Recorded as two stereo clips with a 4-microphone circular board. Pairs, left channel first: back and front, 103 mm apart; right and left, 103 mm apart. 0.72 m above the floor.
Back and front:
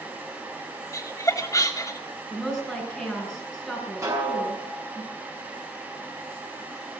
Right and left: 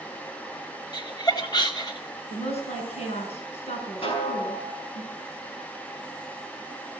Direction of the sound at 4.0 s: 60° right.